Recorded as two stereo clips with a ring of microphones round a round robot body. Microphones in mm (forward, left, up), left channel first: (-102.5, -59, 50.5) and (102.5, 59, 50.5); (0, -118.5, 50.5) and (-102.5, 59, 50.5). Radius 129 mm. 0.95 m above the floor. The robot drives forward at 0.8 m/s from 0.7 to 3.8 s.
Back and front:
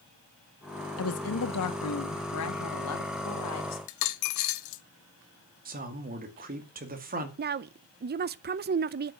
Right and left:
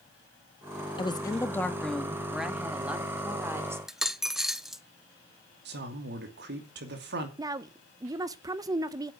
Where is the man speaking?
80° left, 2.5 m.